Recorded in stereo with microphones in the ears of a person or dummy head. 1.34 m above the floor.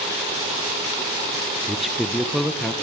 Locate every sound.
1.7 s a man speaking: centre (ahead or behind), 0.5 m